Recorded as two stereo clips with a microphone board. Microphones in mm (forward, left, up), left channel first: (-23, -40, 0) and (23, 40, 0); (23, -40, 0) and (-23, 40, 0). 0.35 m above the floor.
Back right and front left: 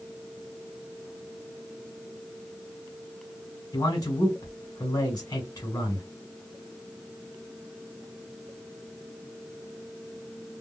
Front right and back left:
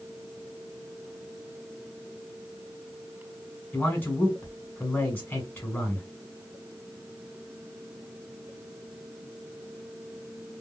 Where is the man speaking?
125° right, 1.6 m.